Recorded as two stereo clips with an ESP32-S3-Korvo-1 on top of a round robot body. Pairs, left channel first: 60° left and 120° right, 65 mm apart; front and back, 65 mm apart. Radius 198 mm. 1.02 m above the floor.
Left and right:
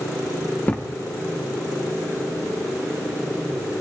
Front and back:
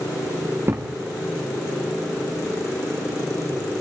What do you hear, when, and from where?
0.7 s a thud: 125° left, 0.8 m